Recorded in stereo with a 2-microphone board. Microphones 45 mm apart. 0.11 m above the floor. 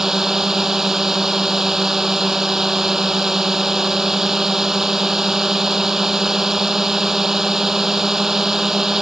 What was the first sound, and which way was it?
A drone, 10° right (ahead or behind).